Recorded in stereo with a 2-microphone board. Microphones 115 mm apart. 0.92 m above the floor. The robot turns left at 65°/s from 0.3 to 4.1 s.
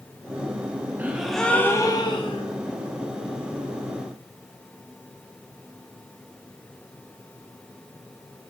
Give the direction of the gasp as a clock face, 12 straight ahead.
5 o'clock.